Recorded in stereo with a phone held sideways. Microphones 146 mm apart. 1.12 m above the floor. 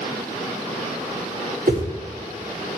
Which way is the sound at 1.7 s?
65° right (ahead or behind).